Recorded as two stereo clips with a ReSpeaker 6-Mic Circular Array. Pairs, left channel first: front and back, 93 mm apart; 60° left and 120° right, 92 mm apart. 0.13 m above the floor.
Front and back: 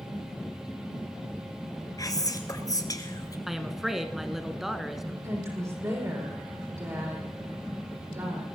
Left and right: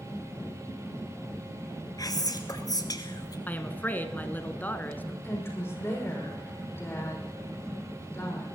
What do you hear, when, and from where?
2.0 s whispering: 35° left, 1.6 m
3.5 s a woman speaking: 95° left, 1.1 m
5.2 s a woman speaking: 125° left, 6.5 m